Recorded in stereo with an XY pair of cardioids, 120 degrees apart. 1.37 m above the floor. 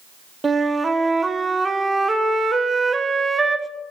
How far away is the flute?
About 0.8 m.